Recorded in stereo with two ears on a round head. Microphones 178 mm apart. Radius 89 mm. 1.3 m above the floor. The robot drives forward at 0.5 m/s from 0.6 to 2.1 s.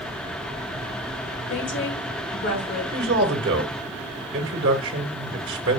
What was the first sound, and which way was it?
A woman speaking, 70° left (ahead or behind).